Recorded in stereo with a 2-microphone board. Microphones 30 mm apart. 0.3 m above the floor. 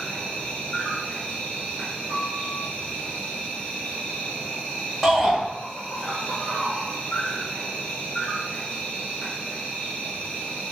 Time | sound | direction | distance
0.0 | an insect | 60° left (ahead or behind) | 1.1 m
2.1 | a piano | 70° left (ahead or behind) | 1.8 m
5.0 | a shout | 10° left (ahead or behind) | 0.9 m